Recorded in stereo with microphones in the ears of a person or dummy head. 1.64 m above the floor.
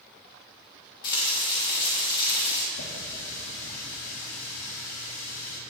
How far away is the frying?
About 4 m.